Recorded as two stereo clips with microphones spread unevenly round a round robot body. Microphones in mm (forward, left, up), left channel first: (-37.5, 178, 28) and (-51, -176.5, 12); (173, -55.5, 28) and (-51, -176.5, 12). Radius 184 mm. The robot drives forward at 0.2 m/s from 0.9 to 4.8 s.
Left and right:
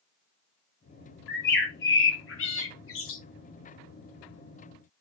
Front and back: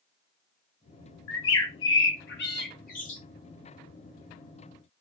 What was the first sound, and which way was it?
A bird, 30° left.